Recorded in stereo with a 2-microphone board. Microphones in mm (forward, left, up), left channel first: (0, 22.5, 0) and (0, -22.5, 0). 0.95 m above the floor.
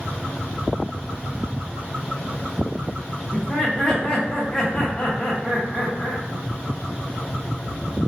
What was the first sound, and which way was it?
Laughter, 15° left (ahead or behind).